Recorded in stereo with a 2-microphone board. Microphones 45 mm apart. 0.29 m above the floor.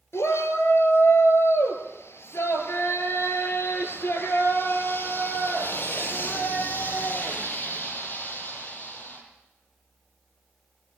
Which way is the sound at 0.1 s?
70° left (ahead or behind).